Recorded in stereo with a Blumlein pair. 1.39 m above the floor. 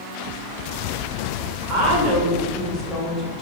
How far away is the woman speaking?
About 1.5 m.